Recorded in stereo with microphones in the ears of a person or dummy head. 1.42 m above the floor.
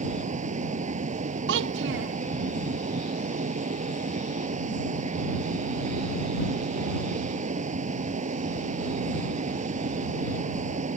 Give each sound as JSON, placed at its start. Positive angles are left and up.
{"t": 0.0, "sound": "a fan", "side_deg": -40}
{"t": 1.5, "sound": "a child speaking", "side_deg": -70}